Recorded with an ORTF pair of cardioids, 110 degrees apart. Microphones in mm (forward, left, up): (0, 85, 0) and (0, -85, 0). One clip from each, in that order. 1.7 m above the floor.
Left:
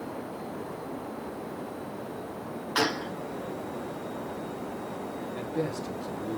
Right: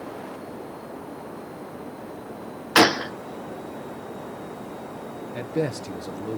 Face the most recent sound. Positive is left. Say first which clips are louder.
# right 6 dB
turn(degrees=-50)